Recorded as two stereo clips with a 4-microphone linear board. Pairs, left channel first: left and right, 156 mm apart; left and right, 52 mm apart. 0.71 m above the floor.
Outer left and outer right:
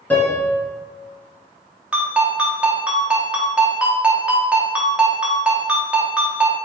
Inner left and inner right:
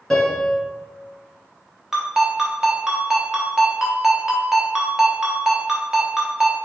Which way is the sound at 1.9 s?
10° right (ahead or behind).